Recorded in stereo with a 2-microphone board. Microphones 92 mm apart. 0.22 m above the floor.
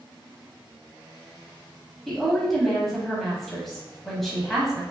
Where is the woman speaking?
5° left (ahead or behind), 1.0 m.